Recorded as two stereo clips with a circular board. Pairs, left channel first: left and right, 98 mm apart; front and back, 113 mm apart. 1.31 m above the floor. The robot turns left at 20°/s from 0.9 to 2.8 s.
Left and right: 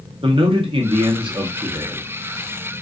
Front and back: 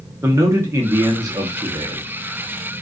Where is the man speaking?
115° right, 0.7 m; by 2.1 s 135° right, 0.7 m.